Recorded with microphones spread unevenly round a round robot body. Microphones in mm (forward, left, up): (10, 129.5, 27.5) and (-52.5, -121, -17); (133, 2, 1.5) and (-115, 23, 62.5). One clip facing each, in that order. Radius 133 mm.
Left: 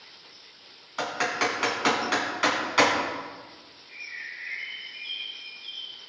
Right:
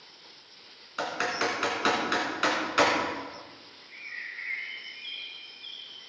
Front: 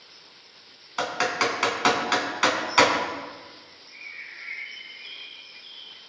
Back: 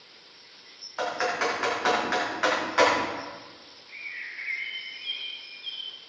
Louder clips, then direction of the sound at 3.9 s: Left 1 dB, even; 155° right.